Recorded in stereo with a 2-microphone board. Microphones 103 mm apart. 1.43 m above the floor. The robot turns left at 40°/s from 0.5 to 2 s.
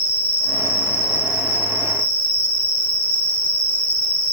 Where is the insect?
120° left, 2 m; by 4.3 s 60° left, 2 m.